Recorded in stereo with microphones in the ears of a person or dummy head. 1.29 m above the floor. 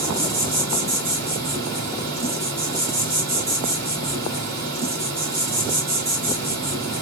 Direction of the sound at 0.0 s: 65° right (ahead or behind).